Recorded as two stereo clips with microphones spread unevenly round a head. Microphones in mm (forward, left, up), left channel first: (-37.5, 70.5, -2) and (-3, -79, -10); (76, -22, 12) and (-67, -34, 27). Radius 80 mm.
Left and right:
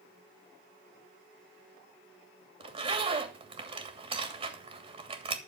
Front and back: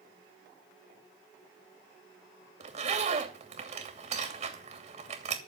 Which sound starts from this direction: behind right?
A zipper, at 2.6 s.